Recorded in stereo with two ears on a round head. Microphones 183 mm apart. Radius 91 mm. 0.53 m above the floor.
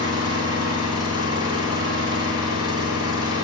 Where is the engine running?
20° right (ahead or behind), 2.5 m.